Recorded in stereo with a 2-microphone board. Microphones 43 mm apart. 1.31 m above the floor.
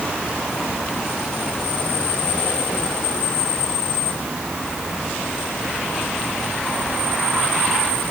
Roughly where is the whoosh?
I don't hear a whoosh.